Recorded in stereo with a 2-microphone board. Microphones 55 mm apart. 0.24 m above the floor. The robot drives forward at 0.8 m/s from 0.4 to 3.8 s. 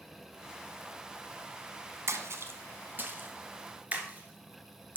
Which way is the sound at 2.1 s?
55° right (ahead or behind).